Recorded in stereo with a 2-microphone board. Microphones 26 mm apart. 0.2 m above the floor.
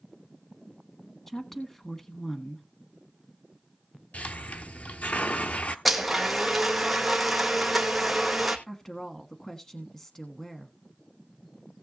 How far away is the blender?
About 2 m.